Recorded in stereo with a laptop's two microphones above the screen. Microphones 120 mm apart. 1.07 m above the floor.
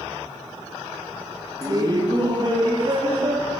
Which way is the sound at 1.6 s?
30° right (ahead or behind).